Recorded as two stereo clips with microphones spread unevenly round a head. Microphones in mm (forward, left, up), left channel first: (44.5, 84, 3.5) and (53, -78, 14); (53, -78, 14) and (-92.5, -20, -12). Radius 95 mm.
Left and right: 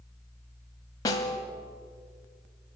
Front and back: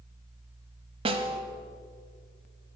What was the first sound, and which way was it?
A snare drum, 140° left.